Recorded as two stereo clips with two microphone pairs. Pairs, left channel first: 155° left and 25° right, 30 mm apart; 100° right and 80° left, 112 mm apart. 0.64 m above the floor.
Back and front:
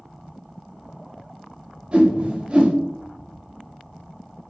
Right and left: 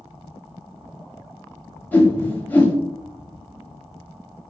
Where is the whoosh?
45° right, 0.8 m.